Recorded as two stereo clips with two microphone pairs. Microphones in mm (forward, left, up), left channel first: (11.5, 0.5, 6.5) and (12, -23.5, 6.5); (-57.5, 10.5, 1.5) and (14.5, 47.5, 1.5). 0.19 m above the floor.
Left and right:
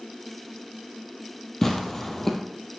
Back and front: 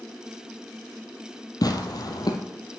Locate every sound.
1.6 s tearing paper: 170° left, 1.6 m